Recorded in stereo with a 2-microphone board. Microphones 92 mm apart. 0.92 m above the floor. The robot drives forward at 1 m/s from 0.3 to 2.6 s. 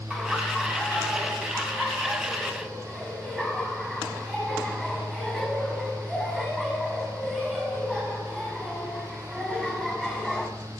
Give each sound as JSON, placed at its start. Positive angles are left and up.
{"t": 0.1, "sound": "laughter", "side_deg": -10, "distance_m": 3.5}